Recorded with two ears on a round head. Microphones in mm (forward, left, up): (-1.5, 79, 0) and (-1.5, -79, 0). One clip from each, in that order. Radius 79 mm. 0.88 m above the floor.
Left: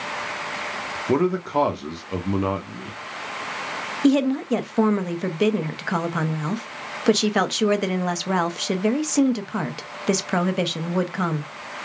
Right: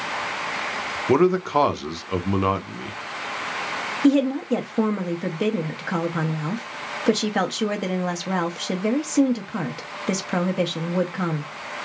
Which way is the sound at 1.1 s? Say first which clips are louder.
Right 3 dB; 25° right (ahead or behind).